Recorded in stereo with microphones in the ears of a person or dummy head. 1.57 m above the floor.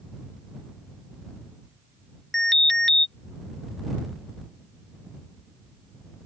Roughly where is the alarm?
Centre.